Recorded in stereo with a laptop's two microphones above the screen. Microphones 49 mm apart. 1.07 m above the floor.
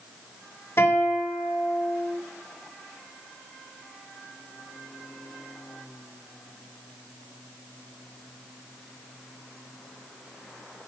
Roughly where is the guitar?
Left.